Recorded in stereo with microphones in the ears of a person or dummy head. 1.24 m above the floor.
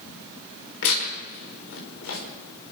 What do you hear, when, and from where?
0.8 s tearing paper: 80° left, 5.5 m